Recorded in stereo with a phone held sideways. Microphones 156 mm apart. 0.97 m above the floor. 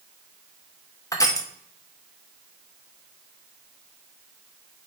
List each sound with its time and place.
1.1 s crushing: 20° left (ahead or behind), 1.3 m